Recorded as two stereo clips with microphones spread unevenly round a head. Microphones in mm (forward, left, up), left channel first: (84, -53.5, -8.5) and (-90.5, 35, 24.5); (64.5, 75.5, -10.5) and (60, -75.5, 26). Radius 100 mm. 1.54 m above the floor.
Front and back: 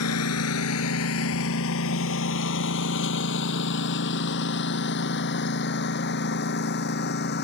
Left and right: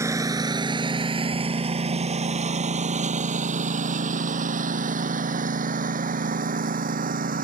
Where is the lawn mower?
30° right; by 7.4 s 65° right.